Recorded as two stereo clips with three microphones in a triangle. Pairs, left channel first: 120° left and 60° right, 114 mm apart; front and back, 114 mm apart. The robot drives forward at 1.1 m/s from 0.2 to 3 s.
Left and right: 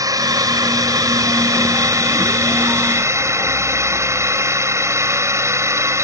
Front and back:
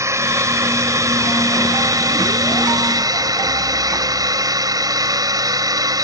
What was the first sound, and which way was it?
A drone, 115° right.